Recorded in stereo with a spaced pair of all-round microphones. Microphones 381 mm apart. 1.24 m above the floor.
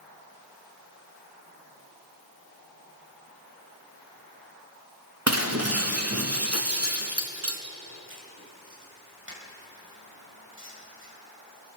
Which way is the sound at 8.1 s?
30° right (ahead or behind).